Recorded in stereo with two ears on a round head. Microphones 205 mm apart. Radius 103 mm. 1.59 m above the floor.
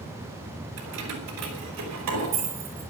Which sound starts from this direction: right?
Keys jangling, at 0.8 s.